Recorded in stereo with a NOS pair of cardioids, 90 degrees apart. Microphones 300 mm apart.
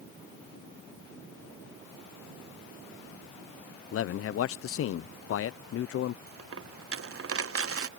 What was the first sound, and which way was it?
A man speaking, 45° left.